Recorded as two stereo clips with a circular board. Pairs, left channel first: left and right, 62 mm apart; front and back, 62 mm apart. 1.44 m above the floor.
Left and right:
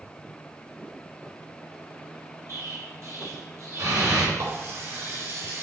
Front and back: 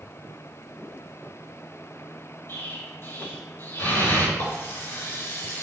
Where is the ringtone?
No ringtone in this recording.